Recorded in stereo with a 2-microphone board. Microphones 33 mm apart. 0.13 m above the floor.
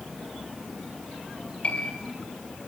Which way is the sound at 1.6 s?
40° left (ahead or behind).